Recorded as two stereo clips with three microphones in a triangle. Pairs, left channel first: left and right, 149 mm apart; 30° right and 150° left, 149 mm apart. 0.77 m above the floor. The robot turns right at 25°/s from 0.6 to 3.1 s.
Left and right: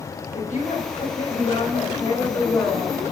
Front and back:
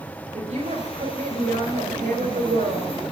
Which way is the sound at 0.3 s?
110° left.